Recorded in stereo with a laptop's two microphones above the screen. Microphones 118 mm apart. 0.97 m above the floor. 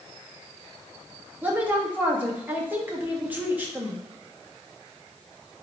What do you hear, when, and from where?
1.4 s a woman speaking: 15° right (ahead or behind), 1.2 m